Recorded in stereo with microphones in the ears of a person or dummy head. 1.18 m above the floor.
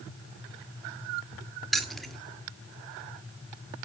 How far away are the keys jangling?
About 1.7 m.